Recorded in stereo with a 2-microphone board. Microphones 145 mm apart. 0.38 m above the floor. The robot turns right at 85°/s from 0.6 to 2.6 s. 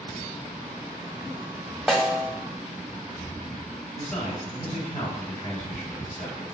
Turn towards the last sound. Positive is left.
turn(degrees=65)  # may be behind; listen again after turning